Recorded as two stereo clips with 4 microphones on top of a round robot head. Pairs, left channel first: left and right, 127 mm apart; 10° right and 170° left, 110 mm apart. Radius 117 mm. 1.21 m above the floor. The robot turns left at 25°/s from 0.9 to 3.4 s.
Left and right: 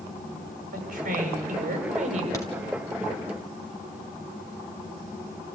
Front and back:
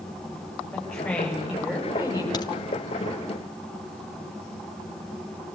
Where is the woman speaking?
90° right, 8 m; by 2.2 s 125° right, 8 m.